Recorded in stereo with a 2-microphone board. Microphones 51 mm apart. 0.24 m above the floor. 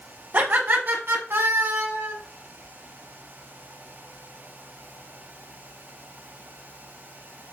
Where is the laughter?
45° right (ahead or behind), 1.5 m; by 2.1 s 55° right (ahead or behind), 2 m.